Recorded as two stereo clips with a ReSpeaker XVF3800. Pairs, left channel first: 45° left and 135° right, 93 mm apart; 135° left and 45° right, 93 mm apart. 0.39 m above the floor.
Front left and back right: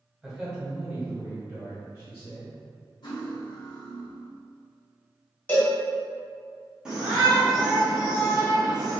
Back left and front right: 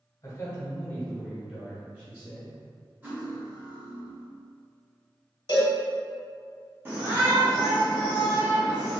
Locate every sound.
0.2 s a man speaking: 140° left, 1.1 m; by 2.6 s 90° right, 1.3 m
3.0 s cutlery clinking: 25° left, 1.3 m
5.5 s a cowbell: 115° left, 1.4 m
6.8 s a shout: 70° right, 0.8 m